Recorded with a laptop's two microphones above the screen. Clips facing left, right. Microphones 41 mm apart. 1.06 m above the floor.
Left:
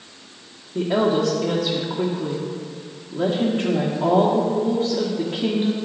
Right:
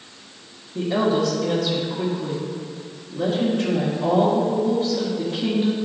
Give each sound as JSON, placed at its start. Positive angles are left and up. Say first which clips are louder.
{"t": 0.8, "sound": "a woman speaking", "louder": "left 1 dB", "side_deg": 55, "distance_m": 1.1}